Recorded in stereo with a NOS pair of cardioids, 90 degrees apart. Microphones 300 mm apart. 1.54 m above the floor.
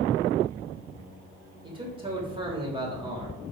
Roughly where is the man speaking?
Ahead.